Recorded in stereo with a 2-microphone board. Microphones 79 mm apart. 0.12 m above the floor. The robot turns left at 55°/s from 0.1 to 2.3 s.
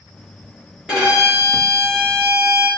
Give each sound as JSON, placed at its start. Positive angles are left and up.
{"t": 0.9, "sound": "a violin", "azimuth_deg": -20, "distance_m": 1.7}